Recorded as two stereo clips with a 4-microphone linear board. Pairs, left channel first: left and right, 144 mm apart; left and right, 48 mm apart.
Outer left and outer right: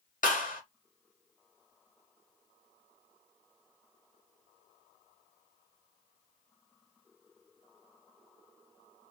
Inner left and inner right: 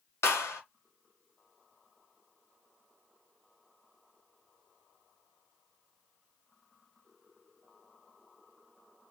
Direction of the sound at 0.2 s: 65° left (ahead or behind).